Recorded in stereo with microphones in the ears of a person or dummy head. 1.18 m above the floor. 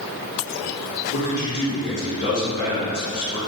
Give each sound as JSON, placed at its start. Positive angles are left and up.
{"t": 1.1, "sound": "a man speaking", "side_deg": 75, "distance_m": 1.7}